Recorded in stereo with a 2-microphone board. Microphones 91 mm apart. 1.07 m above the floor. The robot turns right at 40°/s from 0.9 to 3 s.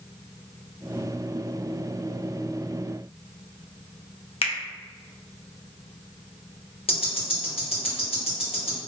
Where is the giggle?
No giggle in this recording.